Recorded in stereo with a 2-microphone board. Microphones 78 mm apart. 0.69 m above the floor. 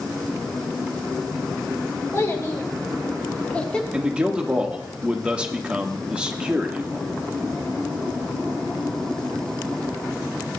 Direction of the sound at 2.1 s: 40° left (ahead or behind).